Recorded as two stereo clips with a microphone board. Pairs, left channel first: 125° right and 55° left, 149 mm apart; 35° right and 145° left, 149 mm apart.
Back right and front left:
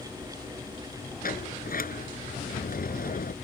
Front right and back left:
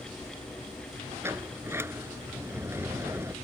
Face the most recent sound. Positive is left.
turn(degrees=-140)